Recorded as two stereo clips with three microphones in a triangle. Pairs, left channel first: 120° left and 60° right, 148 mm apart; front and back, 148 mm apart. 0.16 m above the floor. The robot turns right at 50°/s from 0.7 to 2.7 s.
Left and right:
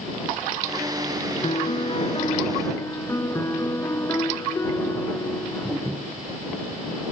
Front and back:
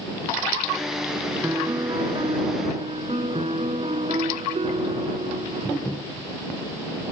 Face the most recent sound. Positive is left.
turn(degrees=180)